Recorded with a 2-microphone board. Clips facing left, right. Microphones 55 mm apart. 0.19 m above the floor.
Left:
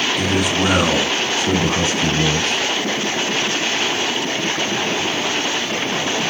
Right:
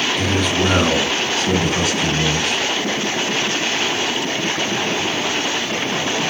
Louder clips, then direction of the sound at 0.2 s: Even; 5° left (ahead or behind).